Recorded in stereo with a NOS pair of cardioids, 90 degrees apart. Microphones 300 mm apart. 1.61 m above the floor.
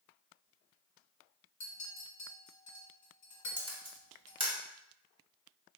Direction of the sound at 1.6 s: 55° left.